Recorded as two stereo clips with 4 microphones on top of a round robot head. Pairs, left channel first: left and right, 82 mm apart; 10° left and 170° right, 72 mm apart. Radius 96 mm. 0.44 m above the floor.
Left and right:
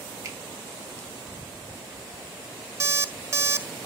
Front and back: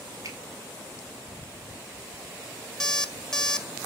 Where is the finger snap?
135° right, 2 m.